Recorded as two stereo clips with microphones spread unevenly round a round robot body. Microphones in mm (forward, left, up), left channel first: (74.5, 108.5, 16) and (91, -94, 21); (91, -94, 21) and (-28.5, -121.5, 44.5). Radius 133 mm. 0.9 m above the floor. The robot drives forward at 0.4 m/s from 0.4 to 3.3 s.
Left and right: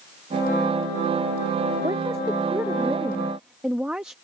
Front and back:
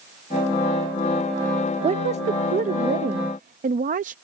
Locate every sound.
1.8 s a woman speaking: 155° right; by 4.2 s 170° right